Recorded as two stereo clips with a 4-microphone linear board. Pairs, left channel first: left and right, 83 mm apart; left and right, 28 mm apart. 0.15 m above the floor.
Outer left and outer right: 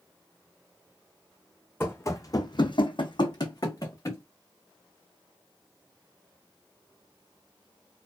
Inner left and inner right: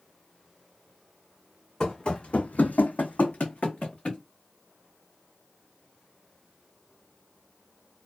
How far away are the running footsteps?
About 0.8 m.